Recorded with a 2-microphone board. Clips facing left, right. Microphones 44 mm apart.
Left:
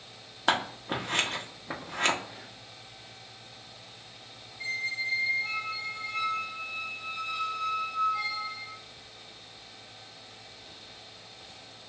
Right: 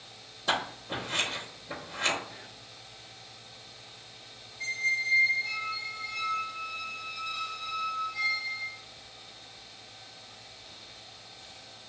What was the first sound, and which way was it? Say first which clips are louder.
Scissors: left 3 dB; 50° left (ahead or behind).